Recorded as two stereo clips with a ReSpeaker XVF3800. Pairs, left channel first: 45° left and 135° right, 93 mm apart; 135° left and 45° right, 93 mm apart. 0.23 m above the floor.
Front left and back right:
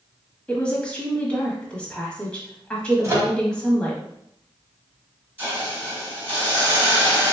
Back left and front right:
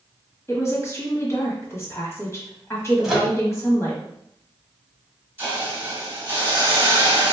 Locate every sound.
0.5 s a woman speaking: 110° left, 1.1 m
3.0 s a microwave: 130° right, 0.9 m
5.4 s a hiss: 90° right, 1.3 m